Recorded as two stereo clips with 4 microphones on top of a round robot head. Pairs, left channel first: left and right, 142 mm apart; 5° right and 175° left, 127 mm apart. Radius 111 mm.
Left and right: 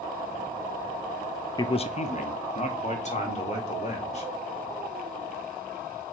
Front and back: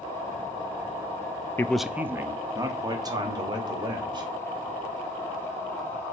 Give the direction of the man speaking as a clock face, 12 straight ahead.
10 o'clock.